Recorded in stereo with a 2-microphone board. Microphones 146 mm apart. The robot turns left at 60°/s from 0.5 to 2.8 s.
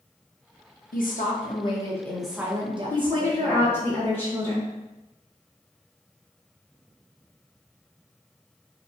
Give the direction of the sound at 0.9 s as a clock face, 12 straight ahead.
9 o'clock.